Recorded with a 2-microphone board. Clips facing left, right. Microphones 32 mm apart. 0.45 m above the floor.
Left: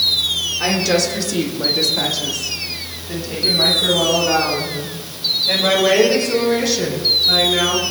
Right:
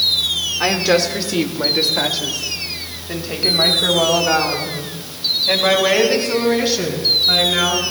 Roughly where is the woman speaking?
Right.